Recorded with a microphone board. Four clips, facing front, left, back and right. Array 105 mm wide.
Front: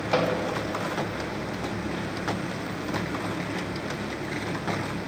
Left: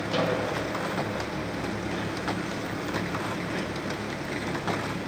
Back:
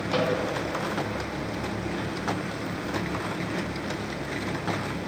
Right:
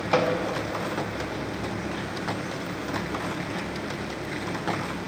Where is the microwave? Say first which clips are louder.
Right 4 dB, front 1 dB; 55° right, 2.5 m.